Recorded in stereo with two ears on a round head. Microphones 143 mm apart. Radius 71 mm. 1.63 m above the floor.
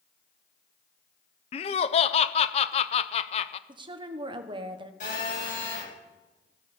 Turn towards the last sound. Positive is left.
turn(degrees=55)  # may be behind; listen again after turning